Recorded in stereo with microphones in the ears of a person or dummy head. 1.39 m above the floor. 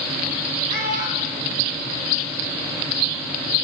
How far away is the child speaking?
About 4 m.